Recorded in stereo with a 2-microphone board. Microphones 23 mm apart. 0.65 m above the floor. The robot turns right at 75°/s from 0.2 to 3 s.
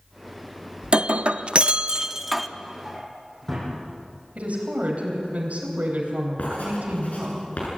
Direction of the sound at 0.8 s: 125° right.